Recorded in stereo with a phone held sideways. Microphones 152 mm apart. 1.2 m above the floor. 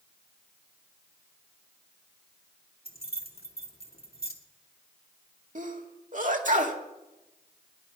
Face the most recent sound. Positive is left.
turn(degrees=-60)  # may be behind; listen again after turning